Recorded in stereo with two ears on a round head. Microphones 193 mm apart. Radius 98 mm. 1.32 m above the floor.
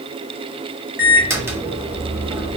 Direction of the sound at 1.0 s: 10° right (ahead or behind).